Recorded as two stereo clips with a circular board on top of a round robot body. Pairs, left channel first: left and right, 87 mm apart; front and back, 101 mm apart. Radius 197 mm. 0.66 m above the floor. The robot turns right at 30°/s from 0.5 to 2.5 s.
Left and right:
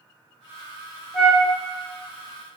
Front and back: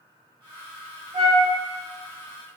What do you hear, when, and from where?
1.1 s a flute: 170° left, 1.3 m; by 1.4 s straight behind, 1.3 m